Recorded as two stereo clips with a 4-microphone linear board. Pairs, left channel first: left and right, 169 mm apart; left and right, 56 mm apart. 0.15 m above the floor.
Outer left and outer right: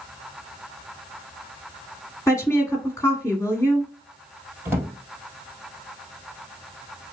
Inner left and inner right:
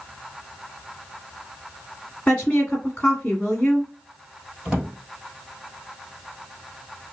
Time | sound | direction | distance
2.3 | a woman speaking | 15° left (ahead or behind) | 1.3 m
4.7 | a drawer | 15° right (ahead or behind) | 2.0 m